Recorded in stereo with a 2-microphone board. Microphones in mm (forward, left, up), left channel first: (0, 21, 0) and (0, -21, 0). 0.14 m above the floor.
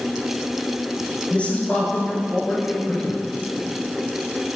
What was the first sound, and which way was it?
A man speaking, 25° left (ahead or behind).